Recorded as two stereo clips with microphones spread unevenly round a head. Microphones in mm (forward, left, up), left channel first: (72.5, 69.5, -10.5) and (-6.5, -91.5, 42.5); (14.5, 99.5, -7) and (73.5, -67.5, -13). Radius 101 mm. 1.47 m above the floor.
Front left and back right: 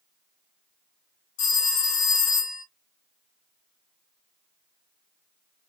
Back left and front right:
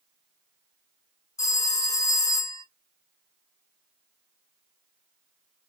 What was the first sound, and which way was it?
A phone ringing, 40° left.